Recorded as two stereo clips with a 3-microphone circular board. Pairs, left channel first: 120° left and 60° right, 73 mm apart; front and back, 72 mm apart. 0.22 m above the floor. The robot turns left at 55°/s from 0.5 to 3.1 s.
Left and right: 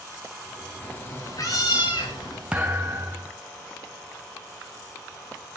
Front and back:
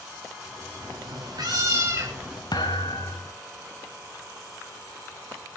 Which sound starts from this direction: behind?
A cat meowing, at 0.8 s.